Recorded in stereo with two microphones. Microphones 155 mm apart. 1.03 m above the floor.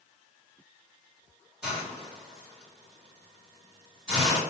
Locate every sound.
1.6 s a hiss: 5° right (ahead or behind), 2.5 m